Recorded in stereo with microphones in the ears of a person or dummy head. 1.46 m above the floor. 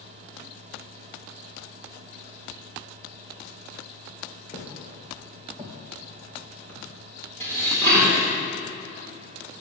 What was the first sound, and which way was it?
Footsteps, 30° left (ahead or behind).